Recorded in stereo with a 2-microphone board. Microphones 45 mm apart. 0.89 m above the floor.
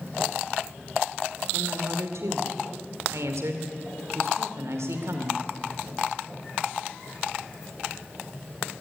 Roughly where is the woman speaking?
Right.